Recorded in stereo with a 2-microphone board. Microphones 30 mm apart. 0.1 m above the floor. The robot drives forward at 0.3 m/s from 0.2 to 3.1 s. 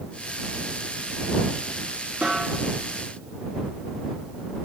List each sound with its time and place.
2.2 s a snare drum: 60° right (ahead or behind), 4 m